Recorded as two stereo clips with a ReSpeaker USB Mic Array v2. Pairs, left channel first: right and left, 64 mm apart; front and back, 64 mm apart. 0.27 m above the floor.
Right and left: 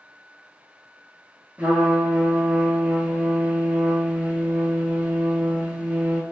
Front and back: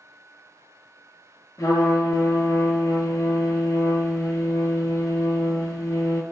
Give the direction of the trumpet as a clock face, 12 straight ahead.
11 o'clock.